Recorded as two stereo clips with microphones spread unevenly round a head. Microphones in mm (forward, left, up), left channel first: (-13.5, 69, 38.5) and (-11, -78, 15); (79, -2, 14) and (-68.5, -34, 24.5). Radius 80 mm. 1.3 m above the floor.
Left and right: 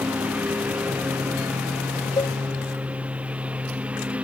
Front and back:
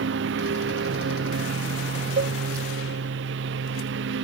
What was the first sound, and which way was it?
A lawn mower, 170° right.